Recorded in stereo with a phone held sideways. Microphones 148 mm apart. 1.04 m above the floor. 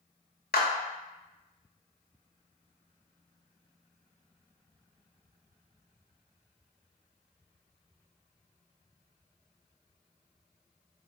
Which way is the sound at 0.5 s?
85° left.